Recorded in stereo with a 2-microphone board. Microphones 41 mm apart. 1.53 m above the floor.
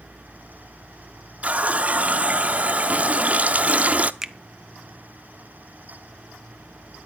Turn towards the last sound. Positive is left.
turn(degrees=-10)  # may be behind; listen again after turning